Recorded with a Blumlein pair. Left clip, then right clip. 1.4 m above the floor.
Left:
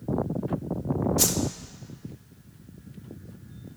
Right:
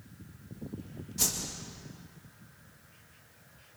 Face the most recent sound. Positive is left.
turn(degrees=20)